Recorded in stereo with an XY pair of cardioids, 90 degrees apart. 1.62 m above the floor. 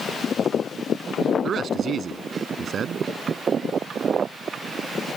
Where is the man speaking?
60° right.